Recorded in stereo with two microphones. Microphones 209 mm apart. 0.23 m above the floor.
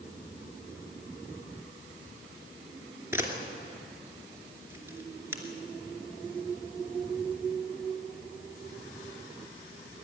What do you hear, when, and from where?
3.1 s a camera shutter: 10° right (ahead or behind), 2.5 m